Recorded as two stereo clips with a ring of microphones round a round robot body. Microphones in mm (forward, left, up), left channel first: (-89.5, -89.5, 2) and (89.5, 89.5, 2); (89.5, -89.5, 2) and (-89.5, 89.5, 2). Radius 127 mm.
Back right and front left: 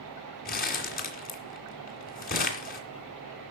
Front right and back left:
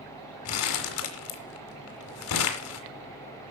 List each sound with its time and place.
0.5 s crumpling: 80° right, 2 m